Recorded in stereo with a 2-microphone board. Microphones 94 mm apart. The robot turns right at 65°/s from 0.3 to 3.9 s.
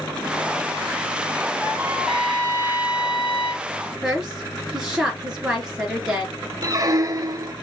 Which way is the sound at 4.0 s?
10° right (ahead or behind).